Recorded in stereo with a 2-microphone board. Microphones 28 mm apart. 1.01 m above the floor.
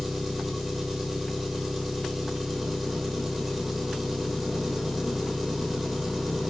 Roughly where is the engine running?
Centre.